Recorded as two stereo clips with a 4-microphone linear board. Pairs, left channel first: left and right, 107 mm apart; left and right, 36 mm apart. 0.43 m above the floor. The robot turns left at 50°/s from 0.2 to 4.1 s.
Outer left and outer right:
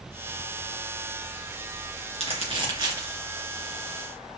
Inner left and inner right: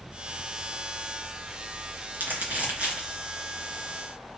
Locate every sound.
2.1 s crumpling: 70° right (ahead or behind), 4 m; by 3.2 s 20° right (ahead or behind), 4 m